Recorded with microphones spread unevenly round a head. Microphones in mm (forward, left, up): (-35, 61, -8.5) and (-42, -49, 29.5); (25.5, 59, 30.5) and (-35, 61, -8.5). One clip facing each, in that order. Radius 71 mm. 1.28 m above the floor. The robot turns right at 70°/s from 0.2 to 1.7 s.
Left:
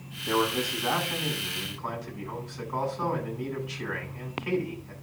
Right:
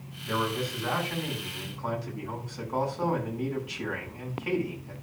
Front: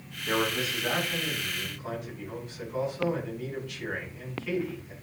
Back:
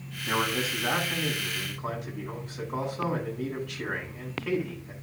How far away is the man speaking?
About 8 m.